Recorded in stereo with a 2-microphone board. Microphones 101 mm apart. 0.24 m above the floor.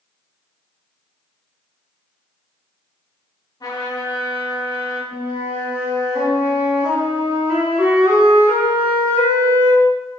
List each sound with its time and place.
3.6 s a trumpet: 40° left (ahead or behind), 1.0 m
5.1 s a flute: 15° right (ahead or behind), 1.6 m